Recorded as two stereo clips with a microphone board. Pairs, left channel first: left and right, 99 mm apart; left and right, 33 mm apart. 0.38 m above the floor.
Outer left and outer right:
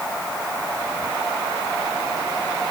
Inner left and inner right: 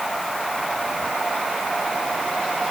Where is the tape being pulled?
No tape being pulled in this recording.